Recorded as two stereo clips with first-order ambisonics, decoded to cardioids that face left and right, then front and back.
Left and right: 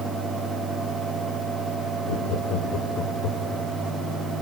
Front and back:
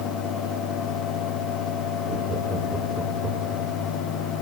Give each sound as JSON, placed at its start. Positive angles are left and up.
{"t": 2.1, "sound": "laughter", "azimuth_deg": 105, "distance_m": 2.5}